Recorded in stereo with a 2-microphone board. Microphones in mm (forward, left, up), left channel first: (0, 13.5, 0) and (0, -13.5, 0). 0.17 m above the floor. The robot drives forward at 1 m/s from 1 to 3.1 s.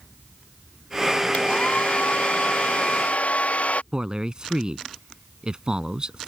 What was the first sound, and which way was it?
A hair dryer, 60° left (ahead or behind).